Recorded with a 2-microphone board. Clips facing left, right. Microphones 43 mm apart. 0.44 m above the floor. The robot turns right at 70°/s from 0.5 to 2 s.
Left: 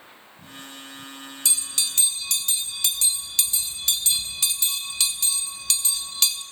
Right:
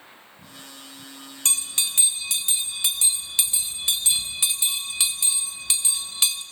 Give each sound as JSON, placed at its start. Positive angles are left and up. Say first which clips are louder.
{"t": 1.4, "sound": "a bell", "louder": "right 1 dB", "side_deg": -50, "distance_m": 1.2}